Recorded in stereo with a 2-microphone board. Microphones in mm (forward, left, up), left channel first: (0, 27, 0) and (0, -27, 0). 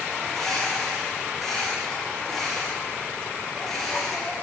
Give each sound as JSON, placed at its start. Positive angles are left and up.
{"t": 0.2, "sound": "a bird", "side_deg": 5, "distance_m": 10.0}